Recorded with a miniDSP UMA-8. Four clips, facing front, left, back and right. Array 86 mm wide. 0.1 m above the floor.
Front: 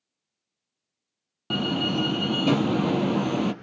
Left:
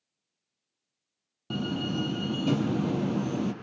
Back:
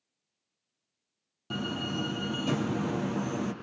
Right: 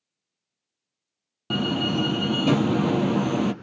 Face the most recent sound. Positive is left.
turn(degrees=-45)